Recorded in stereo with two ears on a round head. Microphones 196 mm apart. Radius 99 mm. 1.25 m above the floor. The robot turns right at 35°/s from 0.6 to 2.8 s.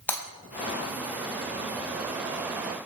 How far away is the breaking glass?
About 3.5 m.